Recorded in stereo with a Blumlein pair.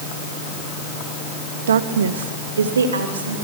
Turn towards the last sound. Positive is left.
turn(degrees=-70)